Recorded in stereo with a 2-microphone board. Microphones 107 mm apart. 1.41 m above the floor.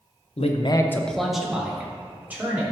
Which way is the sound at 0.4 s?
80° left.